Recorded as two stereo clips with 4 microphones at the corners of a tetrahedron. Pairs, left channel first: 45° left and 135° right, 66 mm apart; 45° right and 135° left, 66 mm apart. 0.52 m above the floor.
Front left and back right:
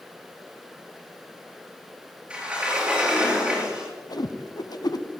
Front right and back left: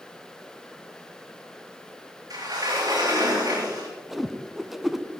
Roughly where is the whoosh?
Ahead left.